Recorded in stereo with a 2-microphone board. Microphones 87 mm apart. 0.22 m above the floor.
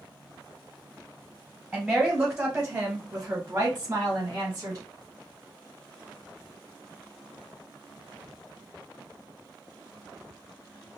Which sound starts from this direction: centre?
A woman speaking, at 1.7 s.